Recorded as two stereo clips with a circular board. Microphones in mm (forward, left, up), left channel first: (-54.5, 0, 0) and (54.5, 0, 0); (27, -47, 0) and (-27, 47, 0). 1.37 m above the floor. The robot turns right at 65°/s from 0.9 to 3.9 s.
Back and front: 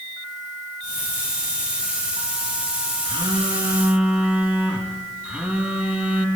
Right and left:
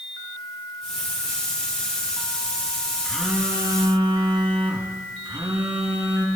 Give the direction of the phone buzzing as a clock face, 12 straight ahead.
11 o'clock.